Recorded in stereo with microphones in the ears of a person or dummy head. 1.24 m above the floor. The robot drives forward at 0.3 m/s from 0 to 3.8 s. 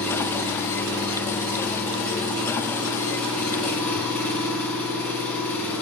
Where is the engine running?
15° left (ahead or behind), 5.5 m; by 5.8 s 10° left (ahead or behind), 6.5 m.